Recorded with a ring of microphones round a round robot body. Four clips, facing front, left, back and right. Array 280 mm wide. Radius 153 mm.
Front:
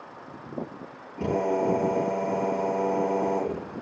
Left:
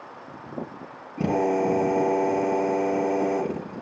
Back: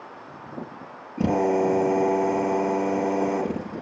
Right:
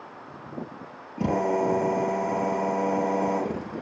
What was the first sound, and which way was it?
A drill, 150° left.